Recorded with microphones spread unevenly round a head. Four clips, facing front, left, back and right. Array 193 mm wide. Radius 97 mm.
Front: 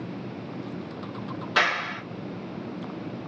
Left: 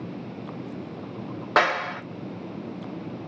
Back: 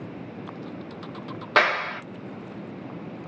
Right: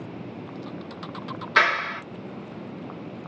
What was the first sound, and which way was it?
A clap, 130° left.